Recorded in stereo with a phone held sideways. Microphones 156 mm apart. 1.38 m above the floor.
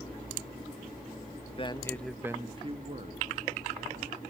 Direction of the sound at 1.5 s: 40° left (ahead or behind).